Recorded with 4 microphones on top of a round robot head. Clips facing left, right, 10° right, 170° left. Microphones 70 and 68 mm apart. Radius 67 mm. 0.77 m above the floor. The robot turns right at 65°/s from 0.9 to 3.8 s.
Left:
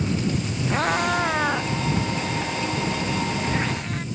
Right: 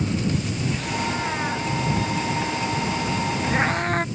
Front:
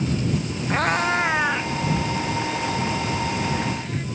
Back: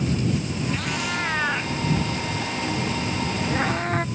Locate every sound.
0.7 s a cat meowing: 40° left; by 4.0 s 135° right